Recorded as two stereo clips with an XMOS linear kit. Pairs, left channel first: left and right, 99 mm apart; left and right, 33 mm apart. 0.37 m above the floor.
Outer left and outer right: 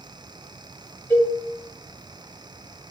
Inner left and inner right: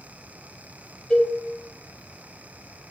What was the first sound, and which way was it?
A cowbell, 20° left (ahead or behind).